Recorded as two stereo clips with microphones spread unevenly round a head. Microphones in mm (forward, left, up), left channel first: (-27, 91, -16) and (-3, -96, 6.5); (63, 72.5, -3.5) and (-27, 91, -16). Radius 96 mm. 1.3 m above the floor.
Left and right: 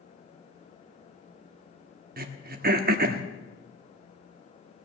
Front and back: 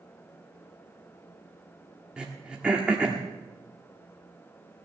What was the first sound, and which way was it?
Throat clearing, 105° right.